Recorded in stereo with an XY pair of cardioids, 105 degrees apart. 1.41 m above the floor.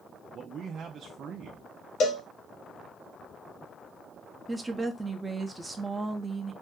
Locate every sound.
0.3 s a man speaking: 55° right, 0.5 m
2.0 s a cowbell: 65° left, 0.9 m
4.5 s a woman speaking: 15° right, 0.8 m